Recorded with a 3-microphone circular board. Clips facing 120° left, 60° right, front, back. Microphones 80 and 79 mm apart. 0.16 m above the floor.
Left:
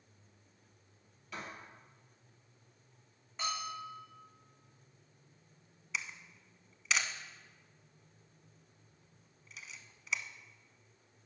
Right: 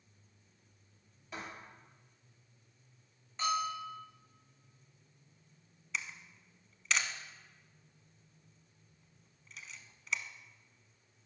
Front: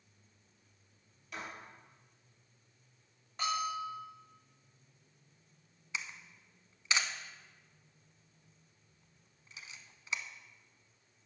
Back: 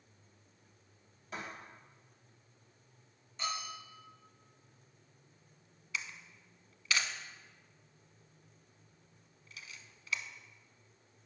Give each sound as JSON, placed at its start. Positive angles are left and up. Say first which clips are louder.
{"t": 1.3, "sound": "writing", "louder": "even, back 1 dB", "azimuth_deg": -125, "distance_m": 4.5}
{"t": 3.4, "sound": "a bell", "louder": "right 6 dB, front 6 dB", "azimuth_deg": 35, "distance_m": 4.5}
{"t": 5.9, "sound": "a camera shutter", "louder": "even, even", "azimuth_deg": 35, "distance_m": 0.7}